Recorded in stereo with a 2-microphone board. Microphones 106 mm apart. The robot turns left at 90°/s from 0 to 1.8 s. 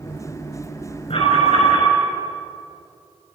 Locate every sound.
1.1 s an alarm: 120° left, 6.5 m; by 1.9 s 55° left, 6.5 m